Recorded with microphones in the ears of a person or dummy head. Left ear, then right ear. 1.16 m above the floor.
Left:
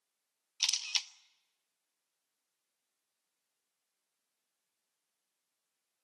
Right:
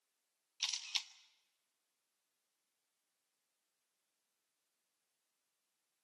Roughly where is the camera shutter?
Centre.